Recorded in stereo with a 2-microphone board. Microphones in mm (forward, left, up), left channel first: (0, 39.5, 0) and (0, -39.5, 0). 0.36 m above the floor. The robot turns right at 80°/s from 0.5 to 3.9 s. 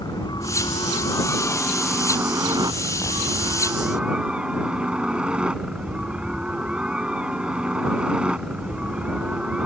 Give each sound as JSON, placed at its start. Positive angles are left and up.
{"t": 0.0, "sound": "a helicopter", "azimuth_deg": 75}